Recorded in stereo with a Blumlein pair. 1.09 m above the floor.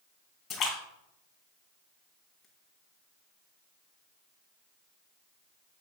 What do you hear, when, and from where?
0.5 s a splash: 30° left, 3 m